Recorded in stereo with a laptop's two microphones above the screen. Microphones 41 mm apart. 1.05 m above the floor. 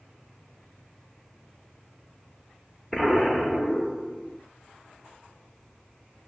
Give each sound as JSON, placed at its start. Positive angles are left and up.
{"t": 2.9, "sound": "an explosion", "side_deg": 0, "distance_m": 1.0}